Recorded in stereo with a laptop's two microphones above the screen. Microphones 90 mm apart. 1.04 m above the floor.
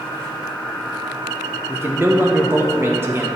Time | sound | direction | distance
1.7 | a man speaking | 25° right (ahead or behind) | 0.8 m